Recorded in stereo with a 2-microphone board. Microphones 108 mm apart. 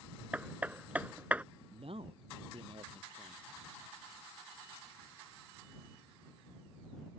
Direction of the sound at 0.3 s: 15° right (ahead or behind).